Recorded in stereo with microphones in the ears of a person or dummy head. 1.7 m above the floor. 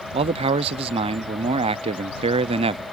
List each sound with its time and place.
0.1 s a man speaking: 30° right (ahead or behind)